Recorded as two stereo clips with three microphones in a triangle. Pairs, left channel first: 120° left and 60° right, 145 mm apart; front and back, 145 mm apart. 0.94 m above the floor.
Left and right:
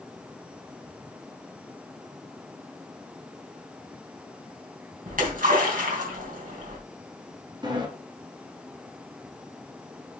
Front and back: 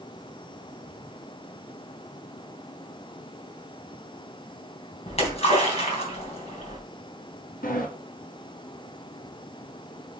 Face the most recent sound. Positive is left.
turn(degrees=-5)